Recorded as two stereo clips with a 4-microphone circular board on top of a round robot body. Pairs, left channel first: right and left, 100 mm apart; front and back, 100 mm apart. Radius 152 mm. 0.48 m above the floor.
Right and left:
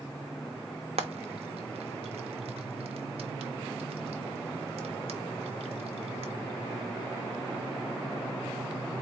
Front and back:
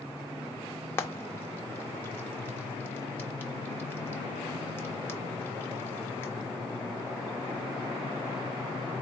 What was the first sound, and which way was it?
Frying, 70° left.